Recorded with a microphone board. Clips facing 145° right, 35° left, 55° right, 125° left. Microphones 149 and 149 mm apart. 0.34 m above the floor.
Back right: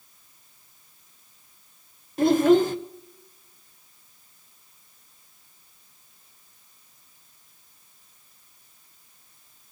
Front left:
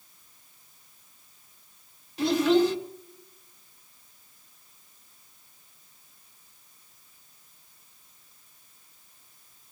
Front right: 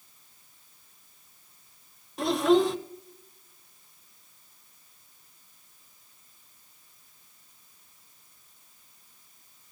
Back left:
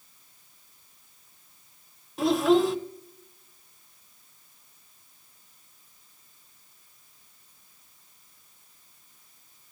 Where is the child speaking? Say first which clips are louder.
Back right 4 dB, back left 1 dB; 150° right, 1.2 m.